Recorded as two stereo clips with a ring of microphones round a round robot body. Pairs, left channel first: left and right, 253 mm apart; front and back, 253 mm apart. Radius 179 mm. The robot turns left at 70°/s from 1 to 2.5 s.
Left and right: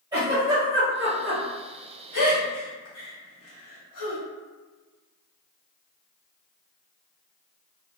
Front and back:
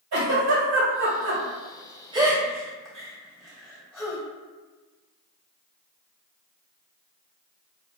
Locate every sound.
0.1 s a giggle: 165° right, 1.5 m; by 4.2 s 90° left, 1.5 m